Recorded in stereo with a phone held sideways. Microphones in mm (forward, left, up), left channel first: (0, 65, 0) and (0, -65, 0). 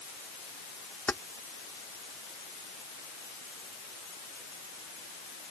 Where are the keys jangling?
15° left (ahead or behind).